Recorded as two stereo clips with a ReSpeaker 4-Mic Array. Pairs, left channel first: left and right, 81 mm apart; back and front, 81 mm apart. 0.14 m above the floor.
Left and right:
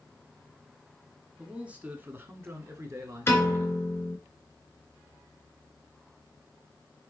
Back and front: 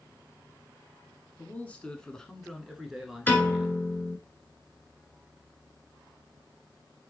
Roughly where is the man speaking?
Behind right.